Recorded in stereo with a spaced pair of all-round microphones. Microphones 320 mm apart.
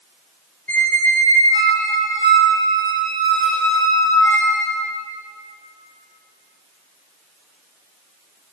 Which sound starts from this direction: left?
A squeak, at 0.7 s.